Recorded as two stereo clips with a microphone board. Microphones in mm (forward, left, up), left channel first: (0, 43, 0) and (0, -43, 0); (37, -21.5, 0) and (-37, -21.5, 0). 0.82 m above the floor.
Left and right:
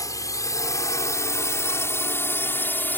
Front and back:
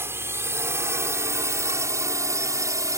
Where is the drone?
130° left; by 3.0 s 155° left.